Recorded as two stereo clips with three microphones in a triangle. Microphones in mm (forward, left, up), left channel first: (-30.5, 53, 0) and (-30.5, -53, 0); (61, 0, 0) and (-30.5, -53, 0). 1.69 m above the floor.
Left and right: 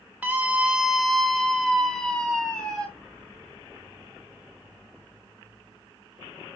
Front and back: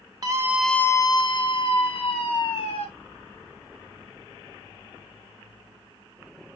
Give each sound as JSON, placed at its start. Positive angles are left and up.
{"t": 0.2, "sound": "a scream", "azimuth_deg": -160, "distance_m": 0.7}